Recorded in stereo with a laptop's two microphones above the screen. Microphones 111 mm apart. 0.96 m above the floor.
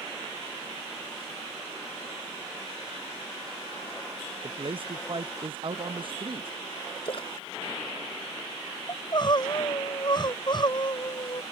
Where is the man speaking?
50° right (ahead or behind).